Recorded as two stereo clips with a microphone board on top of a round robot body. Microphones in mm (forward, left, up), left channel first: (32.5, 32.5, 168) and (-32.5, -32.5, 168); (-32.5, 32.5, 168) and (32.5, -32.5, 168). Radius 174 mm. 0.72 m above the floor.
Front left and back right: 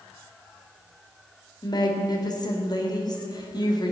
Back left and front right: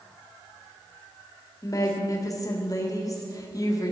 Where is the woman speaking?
85° left, 2.5 m.